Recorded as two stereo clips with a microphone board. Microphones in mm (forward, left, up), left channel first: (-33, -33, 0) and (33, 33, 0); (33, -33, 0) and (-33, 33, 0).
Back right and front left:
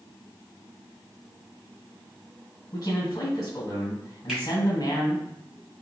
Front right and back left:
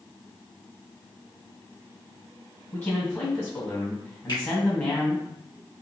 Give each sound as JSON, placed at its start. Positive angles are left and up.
{"t": 2.7, "sound": "a man speaking", "azimuth_deg": -95, "distance_m": 2.0}
{"t": 4.3, "sound": "a finger snap", "azimuth_deg": -40, "distance_m": 1.9}